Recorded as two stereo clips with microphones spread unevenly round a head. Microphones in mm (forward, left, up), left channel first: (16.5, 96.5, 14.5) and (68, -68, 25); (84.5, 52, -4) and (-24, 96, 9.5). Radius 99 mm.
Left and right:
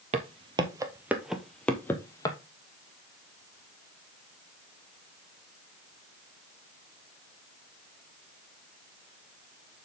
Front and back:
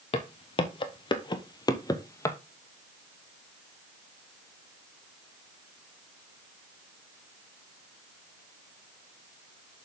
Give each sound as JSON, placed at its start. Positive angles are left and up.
{"t": 0.1, "sound": "footsteps", "azimuth_deg": -50, "distance_m": 1.2}